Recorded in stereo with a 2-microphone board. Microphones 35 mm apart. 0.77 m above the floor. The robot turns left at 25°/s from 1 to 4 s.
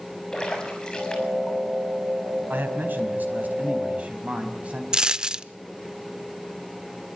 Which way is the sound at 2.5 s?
95° right.